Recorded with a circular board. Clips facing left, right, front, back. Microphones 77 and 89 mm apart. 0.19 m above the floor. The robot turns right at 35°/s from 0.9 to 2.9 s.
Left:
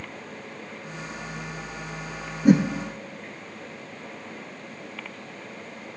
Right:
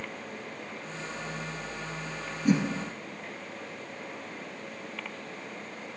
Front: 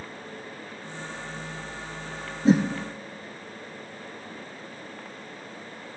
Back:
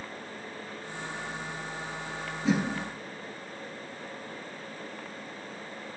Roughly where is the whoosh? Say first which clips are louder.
Left 7 dB, front 7 dB; ahead left.